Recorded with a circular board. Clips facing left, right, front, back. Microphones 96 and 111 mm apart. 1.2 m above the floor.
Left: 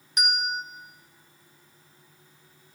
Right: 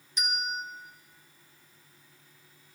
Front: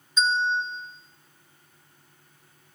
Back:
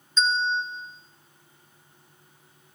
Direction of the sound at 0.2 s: 80° left.